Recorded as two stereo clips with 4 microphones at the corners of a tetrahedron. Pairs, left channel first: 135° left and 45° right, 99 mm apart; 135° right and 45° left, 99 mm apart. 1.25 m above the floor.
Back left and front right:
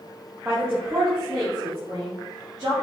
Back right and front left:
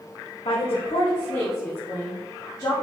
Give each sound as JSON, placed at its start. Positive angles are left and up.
{"t": 0.5, "sound": "a woman speaking", "azimuth_deg": -115, "distance_m": 1.4}